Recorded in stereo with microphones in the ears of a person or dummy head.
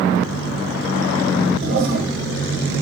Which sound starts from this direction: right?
A toilet flushing, at 1.6 s.